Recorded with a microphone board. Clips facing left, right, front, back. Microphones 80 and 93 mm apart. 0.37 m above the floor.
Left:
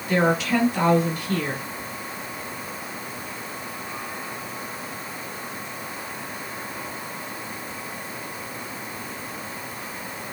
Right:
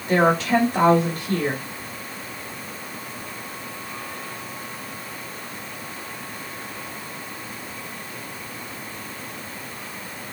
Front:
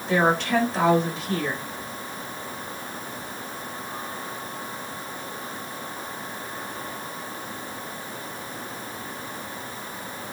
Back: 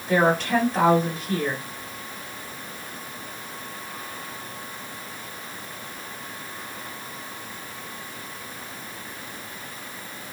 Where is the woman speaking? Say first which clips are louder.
Right 3 dB, back 1 dB; 95° right, 1.6 m.